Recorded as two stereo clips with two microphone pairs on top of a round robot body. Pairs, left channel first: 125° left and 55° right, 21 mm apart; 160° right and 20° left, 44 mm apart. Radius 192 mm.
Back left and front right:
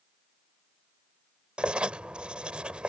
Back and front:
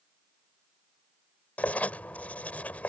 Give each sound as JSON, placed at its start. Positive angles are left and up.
{"t": 1.6, "sound": "writing", "azimuth_deg": -100}